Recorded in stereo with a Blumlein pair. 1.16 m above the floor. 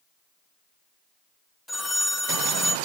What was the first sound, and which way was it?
A phone ringing, 5° left.